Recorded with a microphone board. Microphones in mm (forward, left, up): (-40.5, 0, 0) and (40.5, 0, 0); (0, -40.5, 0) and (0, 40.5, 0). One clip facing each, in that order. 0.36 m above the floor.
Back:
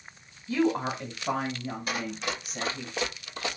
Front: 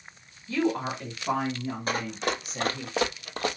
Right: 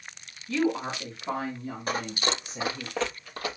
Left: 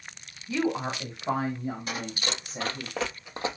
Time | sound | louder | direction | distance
0.5 | a woman speaking | back 1 dB, right 1 dB | 130° left | 1.4 m
1.9 | running footsteps | front 4 dB, right 4 dB | 45° right | 0.9 m